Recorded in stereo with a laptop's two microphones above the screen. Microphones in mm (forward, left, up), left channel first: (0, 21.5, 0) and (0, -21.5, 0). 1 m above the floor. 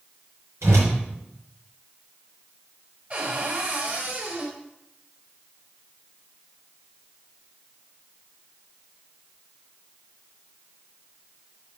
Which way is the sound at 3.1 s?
40° right (ahead or behind).